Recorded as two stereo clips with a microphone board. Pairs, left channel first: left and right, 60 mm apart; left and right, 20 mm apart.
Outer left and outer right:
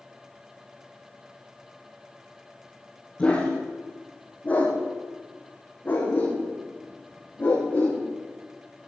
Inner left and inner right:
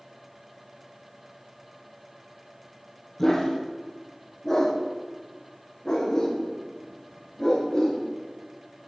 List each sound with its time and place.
3.2 s a dog barking: 20° left (ahead or behind), 5 m; by 8.0 s 35° left (ahead or behind), 10.5 m